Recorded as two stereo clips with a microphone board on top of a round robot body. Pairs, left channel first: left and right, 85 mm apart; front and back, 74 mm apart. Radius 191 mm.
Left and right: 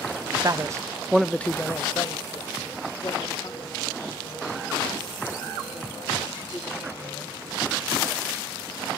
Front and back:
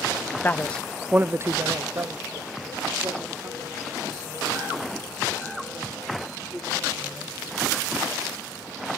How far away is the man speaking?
About 0.7 m.